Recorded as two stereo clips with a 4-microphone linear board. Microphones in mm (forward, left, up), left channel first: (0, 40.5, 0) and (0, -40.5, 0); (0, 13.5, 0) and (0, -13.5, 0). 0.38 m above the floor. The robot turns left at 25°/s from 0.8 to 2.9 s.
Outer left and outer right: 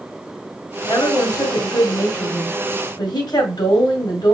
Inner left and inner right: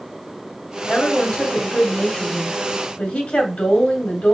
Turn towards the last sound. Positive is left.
turn(degrees=90)